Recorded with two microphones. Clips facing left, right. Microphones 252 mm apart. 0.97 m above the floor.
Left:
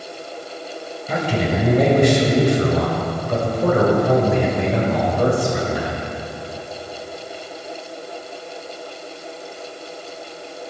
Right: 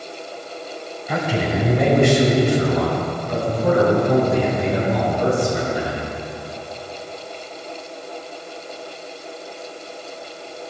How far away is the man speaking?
About 6 m.